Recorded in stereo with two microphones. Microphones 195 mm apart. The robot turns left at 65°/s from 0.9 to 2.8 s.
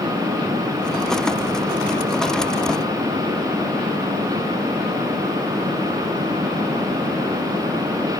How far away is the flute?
I don't hear a flute.